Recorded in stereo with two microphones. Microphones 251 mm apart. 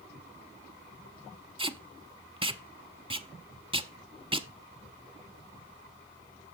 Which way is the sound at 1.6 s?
20° right (ahead or behind).